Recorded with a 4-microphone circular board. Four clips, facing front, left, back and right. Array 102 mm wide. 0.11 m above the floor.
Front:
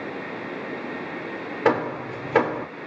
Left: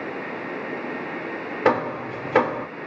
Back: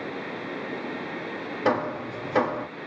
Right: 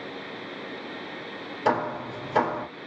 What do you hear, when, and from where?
1.6 s hammering: 65° left, 2 m